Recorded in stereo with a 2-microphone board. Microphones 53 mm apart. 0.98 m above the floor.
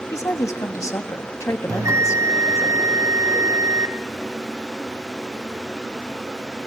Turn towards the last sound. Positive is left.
turn(degrees=-70)  # may be behind; listen again after turning